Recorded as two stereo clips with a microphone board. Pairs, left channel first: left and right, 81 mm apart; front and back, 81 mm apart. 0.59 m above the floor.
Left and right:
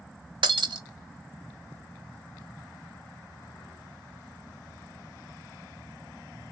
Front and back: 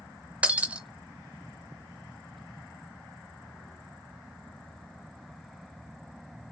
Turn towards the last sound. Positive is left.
turn(degrees=-105)